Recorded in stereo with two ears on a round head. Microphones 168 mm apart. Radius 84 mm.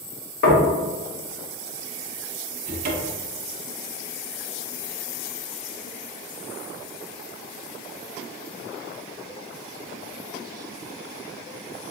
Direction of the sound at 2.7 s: 50° right (ahead or behind).